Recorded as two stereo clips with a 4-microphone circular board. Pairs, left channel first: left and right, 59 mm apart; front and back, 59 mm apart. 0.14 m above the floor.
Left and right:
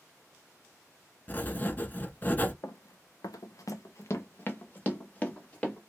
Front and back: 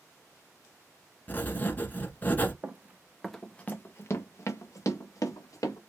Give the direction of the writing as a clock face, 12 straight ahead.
10 o'clock.